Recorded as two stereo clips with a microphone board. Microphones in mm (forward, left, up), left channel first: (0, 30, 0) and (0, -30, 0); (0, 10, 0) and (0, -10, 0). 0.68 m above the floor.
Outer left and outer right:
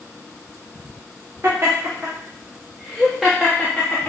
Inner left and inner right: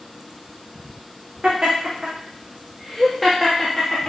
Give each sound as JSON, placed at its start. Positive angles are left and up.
{"t": 1.4, "sound": "laughter", "side_deg": -45, "distance_m": 1.4}